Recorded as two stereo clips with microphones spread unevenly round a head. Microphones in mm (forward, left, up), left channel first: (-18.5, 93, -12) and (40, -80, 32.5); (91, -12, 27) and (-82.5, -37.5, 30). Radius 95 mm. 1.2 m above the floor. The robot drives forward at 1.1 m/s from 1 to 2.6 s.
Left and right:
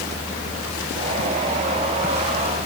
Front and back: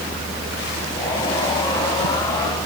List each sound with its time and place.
Only background noise.